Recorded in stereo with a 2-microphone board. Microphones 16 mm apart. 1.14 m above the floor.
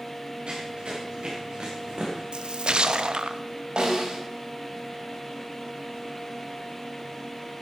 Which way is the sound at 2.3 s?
85° right.